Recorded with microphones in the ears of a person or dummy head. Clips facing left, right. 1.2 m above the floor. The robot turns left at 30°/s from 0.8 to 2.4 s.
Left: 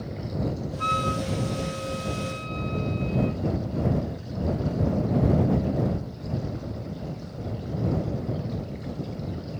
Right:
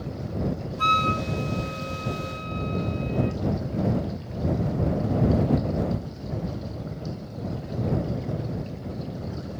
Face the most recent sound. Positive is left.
turn(degrees=-165)